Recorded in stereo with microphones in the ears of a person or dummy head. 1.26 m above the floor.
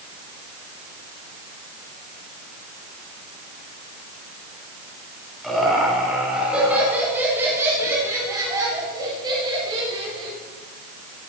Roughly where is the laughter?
Centre.